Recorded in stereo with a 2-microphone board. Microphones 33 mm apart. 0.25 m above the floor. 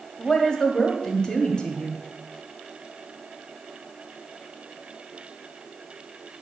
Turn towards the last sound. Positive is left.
turn(degrees=25)  # may be behind; listen again after turning